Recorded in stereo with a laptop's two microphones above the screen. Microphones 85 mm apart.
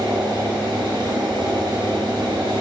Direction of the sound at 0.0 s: 75° right (ahead or behind).